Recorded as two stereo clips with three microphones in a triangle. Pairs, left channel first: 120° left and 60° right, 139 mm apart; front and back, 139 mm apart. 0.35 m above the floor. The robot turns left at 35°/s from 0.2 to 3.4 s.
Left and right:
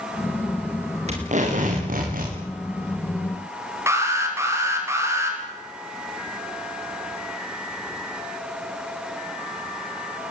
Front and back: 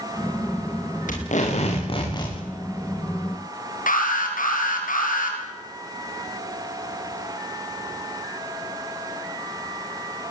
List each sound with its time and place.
1.1 s tape being pulled: 20° right, 8.5 m; by 2.4 s 65° right, 8.5 m
3.9 s an alarm: 10° left, 5.5 m